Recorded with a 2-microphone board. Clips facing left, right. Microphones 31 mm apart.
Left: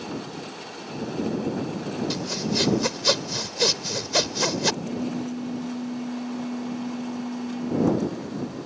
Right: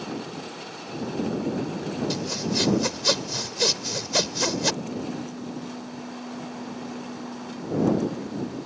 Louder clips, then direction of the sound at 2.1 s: Even; 5° left (ahead or behind).